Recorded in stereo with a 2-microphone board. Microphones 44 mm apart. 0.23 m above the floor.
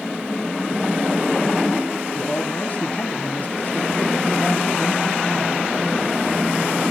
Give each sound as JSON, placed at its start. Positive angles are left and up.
{"t": 2.1, "sound": "a man speaking", "side_deg": 40, "distance_m": 1.5}